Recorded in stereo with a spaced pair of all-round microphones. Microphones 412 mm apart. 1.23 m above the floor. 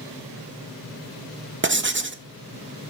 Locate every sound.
1.6 s writing: 30° right (ahead or behind), 0.7 m